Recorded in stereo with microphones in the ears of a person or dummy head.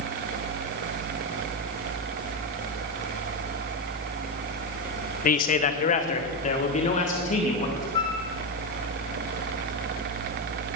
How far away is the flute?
About 2.5 m.